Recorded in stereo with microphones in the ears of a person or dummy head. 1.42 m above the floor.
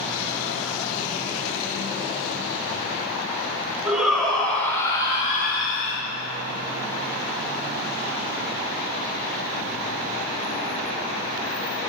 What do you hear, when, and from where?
3.9 s a shout: 5° right (ahead or behind), 2 m; by 6.0 s 70° left (ahead or behind), 1.2 m